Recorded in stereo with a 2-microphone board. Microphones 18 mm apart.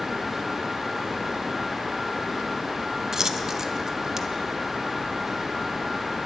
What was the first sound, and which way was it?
A dropped coin, 30° right (ahead or behind).